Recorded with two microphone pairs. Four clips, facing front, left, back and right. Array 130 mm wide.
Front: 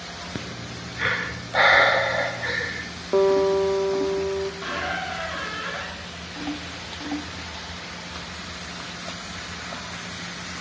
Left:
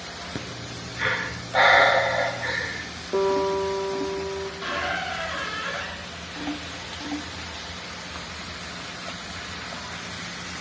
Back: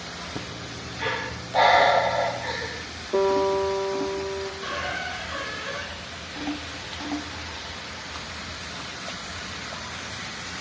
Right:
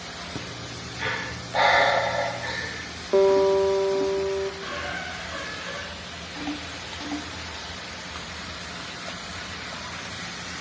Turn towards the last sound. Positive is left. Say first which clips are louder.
# left 4 dB, front 2 dB
turn(degrees=45)